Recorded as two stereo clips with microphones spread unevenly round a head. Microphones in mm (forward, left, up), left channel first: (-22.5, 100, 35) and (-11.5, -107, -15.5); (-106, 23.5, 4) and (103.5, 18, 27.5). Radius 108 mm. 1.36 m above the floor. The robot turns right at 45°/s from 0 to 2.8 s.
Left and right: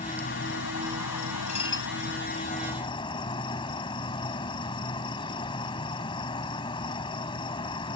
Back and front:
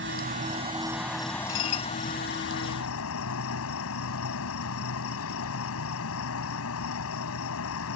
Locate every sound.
0.0 s an insect: 35° left; by 8.0 s 160° left
1.5 s dishes clattering: 150° left; by 1.9 s 170° left